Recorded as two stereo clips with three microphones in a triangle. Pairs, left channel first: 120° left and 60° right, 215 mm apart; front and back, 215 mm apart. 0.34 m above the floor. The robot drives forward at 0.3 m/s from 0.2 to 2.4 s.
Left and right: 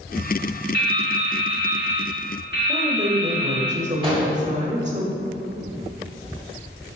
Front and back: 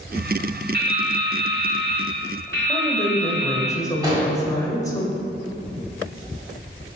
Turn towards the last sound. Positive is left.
turn(degrees=-115)